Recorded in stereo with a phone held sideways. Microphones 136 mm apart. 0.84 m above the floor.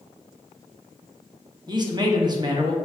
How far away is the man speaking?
About 0.8 m.